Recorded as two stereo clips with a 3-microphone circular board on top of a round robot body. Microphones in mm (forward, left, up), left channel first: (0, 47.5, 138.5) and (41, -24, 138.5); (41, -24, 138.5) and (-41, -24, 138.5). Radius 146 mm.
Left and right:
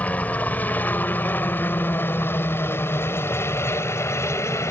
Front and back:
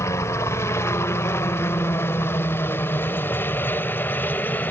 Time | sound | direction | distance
0.0 | a helicopter | 50° left | ?